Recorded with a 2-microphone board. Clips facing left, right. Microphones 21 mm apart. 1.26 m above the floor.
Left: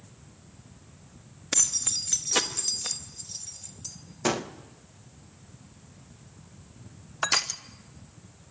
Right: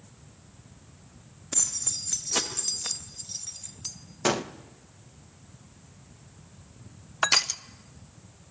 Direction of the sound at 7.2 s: 15° right (ahead or behind).